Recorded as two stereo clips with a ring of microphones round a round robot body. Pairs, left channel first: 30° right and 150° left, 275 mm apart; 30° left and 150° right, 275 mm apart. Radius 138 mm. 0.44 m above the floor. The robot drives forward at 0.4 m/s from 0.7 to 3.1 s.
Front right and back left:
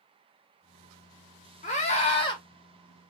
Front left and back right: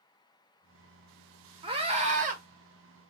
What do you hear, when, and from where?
1.6 s a scream: 85° right, 1.6 m; by 2.4 s 100° right, 1.6 m